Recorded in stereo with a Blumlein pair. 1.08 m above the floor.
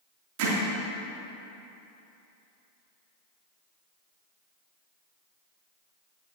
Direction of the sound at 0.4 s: 45° right.